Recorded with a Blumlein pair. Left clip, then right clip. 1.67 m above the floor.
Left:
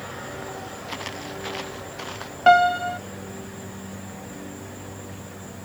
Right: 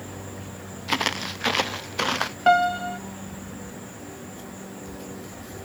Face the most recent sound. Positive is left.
turn(degrees=10)